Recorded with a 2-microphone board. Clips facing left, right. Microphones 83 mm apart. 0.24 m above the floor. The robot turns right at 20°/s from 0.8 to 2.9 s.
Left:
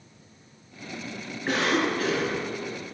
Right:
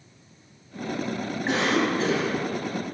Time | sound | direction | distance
1.5 | a cough | 20° right (ahead or behind) | 2 m